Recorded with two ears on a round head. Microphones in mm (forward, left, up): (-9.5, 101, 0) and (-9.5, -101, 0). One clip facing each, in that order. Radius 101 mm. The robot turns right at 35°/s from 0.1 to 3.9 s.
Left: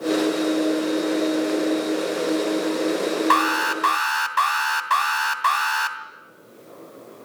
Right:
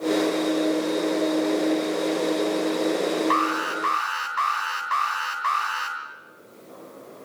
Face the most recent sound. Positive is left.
turn(degrees=70)  # may be behind; listen again after turning